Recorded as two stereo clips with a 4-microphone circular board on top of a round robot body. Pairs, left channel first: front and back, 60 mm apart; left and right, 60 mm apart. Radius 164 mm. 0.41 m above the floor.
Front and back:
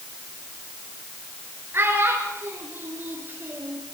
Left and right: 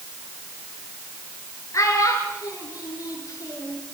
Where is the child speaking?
125° left, 7 m; by 3.8 s 120° left, 7.5 m.